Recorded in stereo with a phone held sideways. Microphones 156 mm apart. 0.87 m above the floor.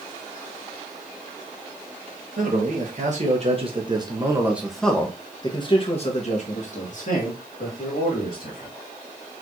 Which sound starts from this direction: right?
A man speaking, at 2.4 s.